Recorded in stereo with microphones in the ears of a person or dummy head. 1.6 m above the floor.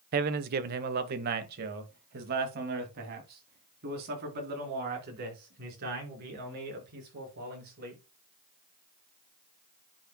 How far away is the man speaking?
About 0.9 m.